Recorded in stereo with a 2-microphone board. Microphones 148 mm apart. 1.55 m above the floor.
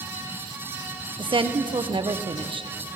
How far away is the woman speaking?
About 1.0 m.